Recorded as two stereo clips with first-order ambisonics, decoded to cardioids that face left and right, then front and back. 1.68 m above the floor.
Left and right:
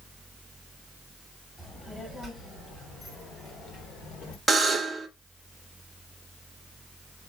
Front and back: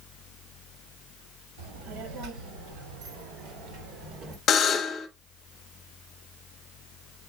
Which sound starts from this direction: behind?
A child speaking, at 1.6 s.